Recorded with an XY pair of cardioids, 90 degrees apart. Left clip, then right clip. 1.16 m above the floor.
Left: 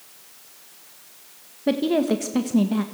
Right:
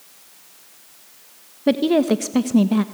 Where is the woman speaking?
35° right, 1.4 m.